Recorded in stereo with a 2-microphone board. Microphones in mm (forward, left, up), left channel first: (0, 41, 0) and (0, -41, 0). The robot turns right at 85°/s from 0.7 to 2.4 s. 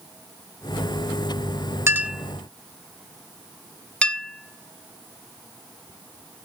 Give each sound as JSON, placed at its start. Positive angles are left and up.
{"t": 1.9, "sound": "a clink", "side_deg": -30, "distance_m": 0.8}